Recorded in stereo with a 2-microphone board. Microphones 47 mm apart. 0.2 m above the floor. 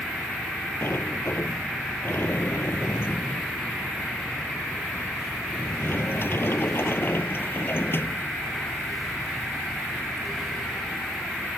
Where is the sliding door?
50° left (ahead or behind).